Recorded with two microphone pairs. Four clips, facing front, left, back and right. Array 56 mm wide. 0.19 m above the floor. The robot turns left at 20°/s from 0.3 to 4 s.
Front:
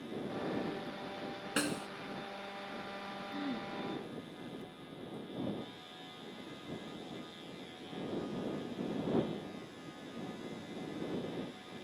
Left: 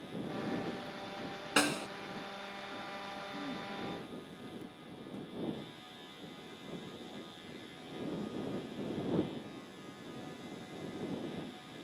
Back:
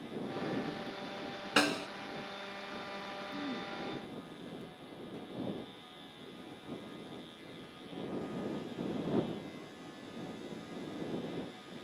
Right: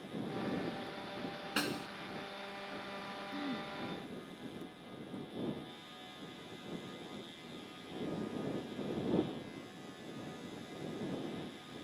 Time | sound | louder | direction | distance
1.6 | a snare drum | left 6 dB, back 6 dB | 140° left | ?
3.3 | throat clearing | right 3 dB, front 1 dB | 45° right | ?